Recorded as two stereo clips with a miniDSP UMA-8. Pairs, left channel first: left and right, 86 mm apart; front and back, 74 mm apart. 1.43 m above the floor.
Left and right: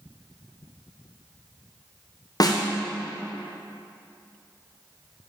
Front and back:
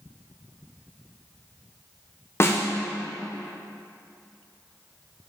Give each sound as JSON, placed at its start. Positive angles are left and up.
{"t": 2.4, "sound": "a snare drum", "azimuth_deg": 50, "distance_m": 1.0}